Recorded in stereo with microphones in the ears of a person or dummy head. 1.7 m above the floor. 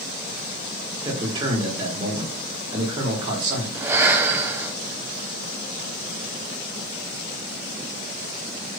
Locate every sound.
1.0 s a man speaking: 25° right (ahead or behind), 4 m
3.8 s breathing: 10° right (ahead or behind), 0.8 m